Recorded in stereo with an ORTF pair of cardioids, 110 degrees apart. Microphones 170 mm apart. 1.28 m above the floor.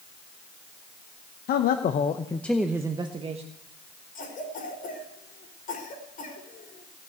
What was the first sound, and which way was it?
A man speaking, 65° left.